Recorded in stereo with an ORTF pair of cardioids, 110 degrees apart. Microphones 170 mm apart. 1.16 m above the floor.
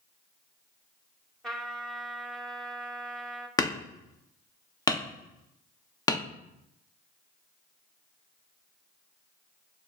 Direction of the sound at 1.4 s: 5° left.